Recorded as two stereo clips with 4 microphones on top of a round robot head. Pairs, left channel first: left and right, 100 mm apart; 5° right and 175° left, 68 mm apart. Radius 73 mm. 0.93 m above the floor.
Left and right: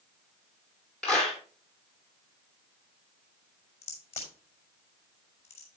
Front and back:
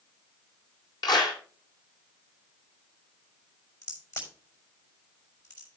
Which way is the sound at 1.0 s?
10° left.